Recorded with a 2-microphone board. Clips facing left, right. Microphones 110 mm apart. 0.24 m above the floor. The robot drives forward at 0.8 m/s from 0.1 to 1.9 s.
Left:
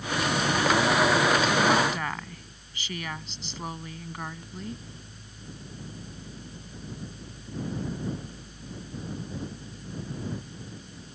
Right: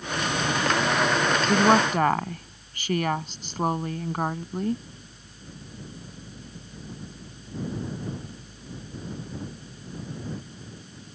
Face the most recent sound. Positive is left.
turn(degrees=-50)  # may be behind; listen again after turning